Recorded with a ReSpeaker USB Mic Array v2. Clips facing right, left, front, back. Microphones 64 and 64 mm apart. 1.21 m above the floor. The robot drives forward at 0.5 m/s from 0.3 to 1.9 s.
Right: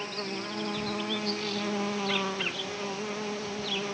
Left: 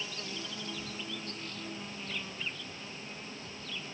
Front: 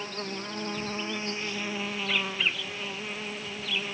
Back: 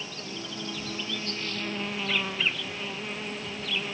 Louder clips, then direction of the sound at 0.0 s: Right 7 dB, front 3 dB; 45° right.